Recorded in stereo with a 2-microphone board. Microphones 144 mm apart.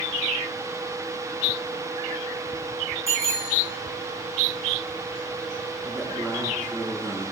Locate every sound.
3.1 s a bicycle bell: 20° right (ahead or behind), 5 m
5.8 s a man speaking: 30° right (ahead or behind), 9.5 m